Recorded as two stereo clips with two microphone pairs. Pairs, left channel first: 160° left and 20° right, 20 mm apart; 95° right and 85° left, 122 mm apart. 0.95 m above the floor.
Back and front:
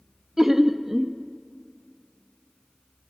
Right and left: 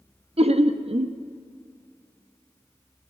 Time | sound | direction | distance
0.4 | laughter | 50° left | 0.9 m